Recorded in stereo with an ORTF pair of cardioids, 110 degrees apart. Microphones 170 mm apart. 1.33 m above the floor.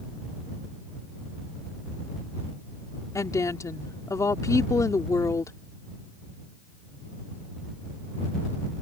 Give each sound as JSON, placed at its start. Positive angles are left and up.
{"t": 3.1, "sound": "a woman speaking", "azimuth_deg": 20}